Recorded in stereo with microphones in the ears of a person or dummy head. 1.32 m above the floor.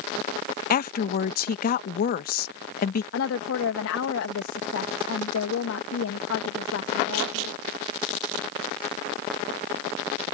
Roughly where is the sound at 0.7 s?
Left.